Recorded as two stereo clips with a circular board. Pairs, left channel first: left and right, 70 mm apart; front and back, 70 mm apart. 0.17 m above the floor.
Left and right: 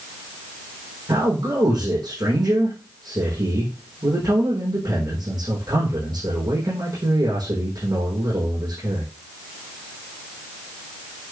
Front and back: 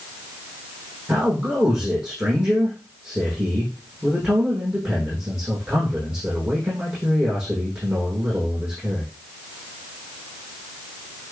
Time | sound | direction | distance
1.1 | a man speaking | 110° right | 7.5 m